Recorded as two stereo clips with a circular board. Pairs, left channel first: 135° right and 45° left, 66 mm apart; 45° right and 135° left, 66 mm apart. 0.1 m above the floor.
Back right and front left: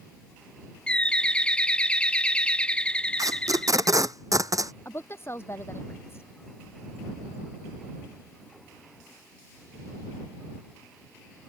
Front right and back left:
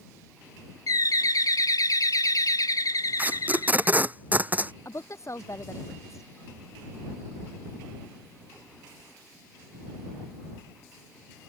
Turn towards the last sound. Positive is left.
turn(degrees=-85)